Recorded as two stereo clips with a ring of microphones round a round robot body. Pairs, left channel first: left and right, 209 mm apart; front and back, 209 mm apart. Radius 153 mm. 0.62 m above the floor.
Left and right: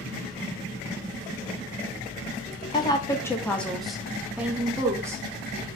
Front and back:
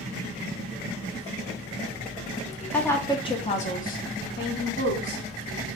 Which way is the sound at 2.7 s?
80° left.